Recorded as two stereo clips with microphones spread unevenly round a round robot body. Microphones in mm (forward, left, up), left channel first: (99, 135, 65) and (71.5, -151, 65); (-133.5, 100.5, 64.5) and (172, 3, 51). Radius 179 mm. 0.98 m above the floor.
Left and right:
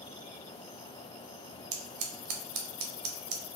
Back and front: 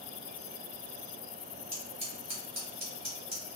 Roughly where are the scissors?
Right.